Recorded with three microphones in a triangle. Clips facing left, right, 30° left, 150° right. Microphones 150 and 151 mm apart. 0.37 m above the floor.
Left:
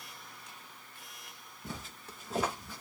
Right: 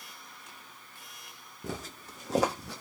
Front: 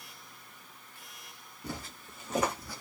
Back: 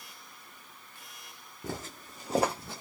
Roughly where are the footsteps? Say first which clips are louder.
Right 6 dB, back 3 dB; right.